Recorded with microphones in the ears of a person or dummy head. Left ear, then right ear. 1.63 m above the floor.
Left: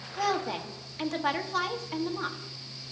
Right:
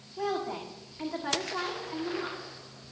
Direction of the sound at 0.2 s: 80° left.